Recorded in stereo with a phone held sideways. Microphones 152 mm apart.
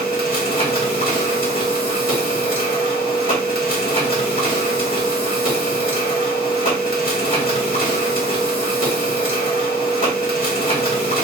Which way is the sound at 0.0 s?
70° left (ahead or behind).